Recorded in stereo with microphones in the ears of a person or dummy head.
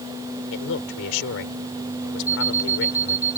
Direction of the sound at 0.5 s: 75° left (ahead or behind).